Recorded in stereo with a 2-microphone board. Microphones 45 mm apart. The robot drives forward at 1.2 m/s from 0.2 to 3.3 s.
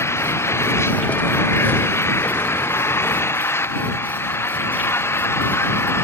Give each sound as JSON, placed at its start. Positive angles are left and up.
{"t": 0.0, "sound": "an engine running", "side_deg": 70}